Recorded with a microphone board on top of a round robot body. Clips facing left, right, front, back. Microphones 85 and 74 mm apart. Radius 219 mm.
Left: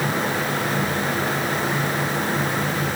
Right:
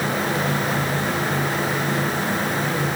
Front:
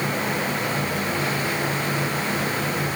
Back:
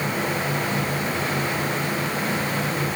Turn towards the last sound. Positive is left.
No sound to turn to.